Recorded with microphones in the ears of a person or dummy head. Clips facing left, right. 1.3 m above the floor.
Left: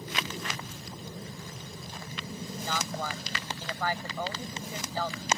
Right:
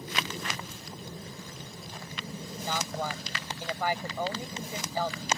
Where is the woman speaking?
15° right (ahead or behind).